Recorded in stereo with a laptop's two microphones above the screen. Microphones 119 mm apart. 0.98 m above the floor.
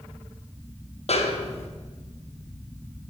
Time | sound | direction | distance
1.1 | a snare drum | 60° left (ahead or behind) | 0.6 m